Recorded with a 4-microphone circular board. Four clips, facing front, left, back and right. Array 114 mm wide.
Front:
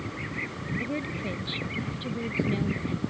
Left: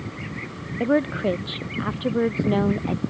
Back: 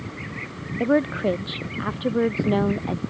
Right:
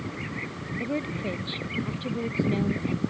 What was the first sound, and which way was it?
A woman speaking, 140° left.